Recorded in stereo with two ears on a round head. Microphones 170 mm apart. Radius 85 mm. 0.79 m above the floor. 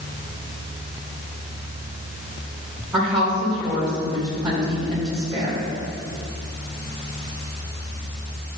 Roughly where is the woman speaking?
Centre.